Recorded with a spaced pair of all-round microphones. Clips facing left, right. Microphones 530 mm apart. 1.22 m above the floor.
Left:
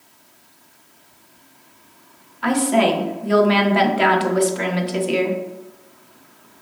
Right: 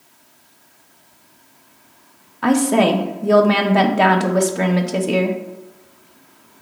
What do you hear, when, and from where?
2.4 s a woman speaking: 65° right (ahead or behind), 0.8 m